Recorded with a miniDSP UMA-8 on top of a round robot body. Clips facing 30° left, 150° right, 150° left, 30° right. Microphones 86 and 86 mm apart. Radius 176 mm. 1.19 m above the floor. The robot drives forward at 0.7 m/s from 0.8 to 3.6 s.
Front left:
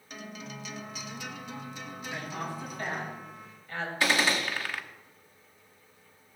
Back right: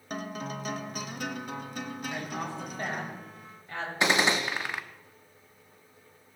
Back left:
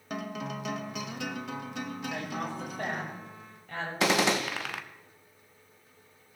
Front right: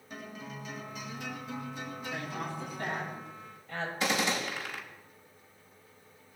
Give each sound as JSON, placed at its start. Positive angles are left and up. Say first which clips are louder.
{"t": 0.1, "sound": "a guitar", "louder": "back right 7 dB, back left 8 dB", "azimuth_deg": 165, "distance_m": 1.1}
{"t": 2.1, "sound": "a woman speaking", "louder": "front left 1 dB, back left 1 dB", "azimuth_deg": 145, "distance_m": 5.5}
{"t": 4.0, "sound": "a gunshot", "louder": "back right 2 dB, back left 6 dB", "azimuth_deg": 140, "distance_m": 0.8}